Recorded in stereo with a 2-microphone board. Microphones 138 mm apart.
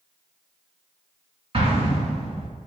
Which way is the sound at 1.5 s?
40° right (ahead or behind).